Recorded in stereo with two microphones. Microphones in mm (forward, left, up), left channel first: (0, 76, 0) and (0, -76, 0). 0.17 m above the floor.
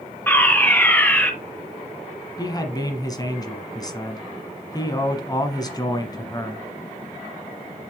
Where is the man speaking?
25° left (ahead or behind), 1.3 m.